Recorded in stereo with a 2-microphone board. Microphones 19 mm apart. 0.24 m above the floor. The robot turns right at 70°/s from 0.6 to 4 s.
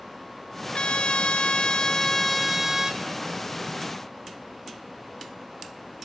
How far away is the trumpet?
About 1.2 m.